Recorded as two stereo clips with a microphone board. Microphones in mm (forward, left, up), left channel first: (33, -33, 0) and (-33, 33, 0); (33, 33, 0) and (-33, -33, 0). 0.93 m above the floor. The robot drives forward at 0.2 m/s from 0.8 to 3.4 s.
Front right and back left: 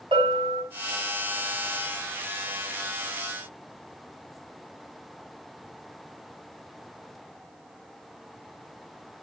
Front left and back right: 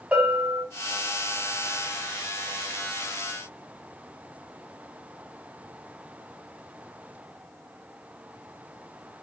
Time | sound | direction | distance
0.1 | a bell | 145° left | 6 m